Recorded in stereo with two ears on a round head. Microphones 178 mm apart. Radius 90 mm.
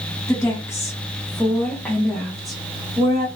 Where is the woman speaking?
15° left (ahead or behind), 0.9 m; by 3.3 s 5° right (ahead or behind), 1.2 m.